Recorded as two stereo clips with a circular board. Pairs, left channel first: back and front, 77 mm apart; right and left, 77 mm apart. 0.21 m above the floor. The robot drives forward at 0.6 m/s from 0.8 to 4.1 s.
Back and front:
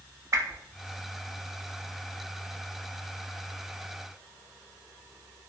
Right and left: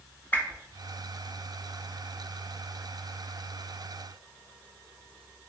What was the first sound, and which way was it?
A whoosh, 30° right.